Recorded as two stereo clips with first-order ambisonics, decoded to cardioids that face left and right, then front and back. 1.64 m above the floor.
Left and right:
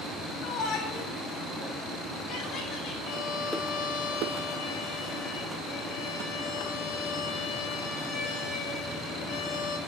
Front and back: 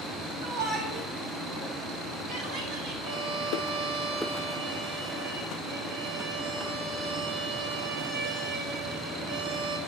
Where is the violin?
135° left, 5 m.